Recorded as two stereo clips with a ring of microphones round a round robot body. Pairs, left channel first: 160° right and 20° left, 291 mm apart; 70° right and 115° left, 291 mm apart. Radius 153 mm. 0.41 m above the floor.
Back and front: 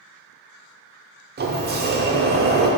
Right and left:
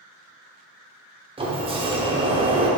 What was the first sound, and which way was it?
A sliding door, 50° left.